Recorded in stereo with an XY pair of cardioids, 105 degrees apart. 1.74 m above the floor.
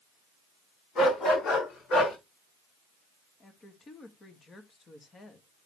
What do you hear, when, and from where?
0.9 s a dog barking: 65° left, 6.5 m
3.4 s a woman speaking: 35° left, 2.5 m